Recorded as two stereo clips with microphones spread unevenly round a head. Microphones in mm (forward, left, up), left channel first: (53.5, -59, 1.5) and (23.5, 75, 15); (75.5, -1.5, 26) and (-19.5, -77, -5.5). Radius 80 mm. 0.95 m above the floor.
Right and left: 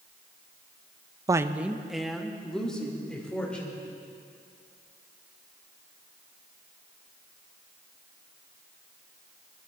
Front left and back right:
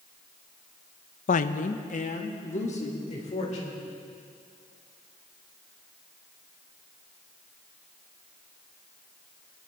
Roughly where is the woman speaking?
Ahead left.